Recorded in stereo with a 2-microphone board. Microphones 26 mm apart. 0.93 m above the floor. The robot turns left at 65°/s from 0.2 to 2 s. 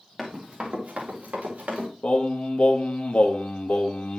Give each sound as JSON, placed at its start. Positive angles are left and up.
{"t": 0.2, "sound": "running footsteps", "side_deg": -30, "distance_m": 3.5}
{"t": 2.0, "sound": "singing", "side_deg": 55, "distance_m": 1.0}